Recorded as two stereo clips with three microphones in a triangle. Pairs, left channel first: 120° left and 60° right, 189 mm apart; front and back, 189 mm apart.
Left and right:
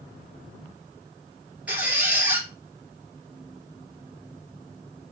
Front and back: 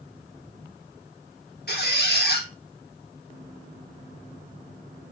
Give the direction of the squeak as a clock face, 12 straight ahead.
11 o'clock.